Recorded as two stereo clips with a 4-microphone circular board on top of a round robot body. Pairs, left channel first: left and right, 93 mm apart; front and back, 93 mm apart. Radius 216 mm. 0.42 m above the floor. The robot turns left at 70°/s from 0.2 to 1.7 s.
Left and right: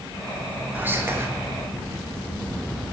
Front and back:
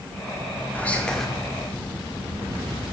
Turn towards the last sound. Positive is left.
turn(degrees=-115)